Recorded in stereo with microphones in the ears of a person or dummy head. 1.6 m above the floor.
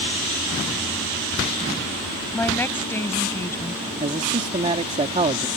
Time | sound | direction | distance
2.3 | a woman speaking | 10° left (ahead or behind) | ?
4.0 | a man speaking | 35° right (ahead or behind) | ?